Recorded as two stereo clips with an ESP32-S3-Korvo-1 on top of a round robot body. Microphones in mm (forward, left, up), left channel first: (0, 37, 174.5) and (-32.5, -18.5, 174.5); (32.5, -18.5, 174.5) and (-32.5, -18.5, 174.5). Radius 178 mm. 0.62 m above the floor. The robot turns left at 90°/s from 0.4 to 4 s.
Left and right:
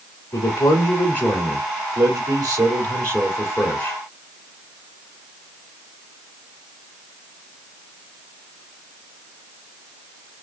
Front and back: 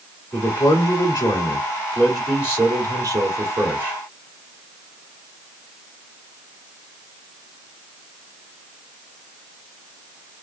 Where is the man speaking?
75° left, 2.5 m; by 4.0 s 115° left, 2.5 m.